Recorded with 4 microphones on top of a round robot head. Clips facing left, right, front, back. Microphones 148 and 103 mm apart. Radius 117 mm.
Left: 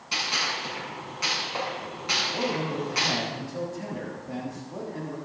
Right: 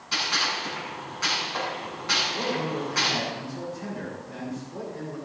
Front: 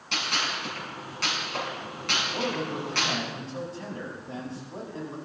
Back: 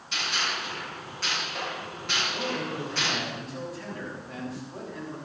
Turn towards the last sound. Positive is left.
turn(degrees=60)